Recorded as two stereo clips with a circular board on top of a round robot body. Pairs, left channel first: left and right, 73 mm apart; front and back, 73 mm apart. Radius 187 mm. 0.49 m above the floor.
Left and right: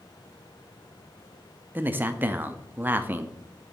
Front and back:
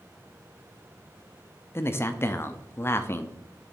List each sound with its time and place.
1.8 s a man speaking: 40° right, 1.0 m